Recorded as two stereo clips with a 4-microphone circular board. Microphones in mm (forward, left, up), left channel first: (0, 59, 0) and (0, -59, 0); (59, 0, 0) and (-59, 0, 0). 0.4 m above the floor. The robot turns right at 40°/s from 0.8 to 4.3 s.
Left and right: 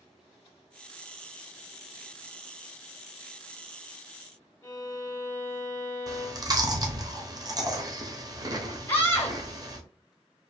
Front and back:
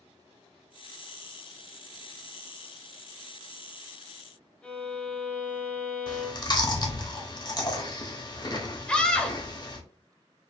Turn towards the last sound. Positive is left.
turn(degrees=60)